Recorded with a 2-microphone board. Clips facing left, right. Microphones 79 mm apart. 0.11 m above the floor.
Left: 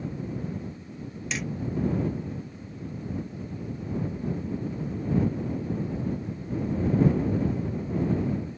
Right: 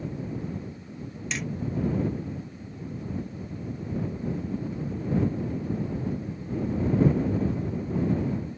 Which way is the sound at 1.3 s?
Centre (ahead or behind).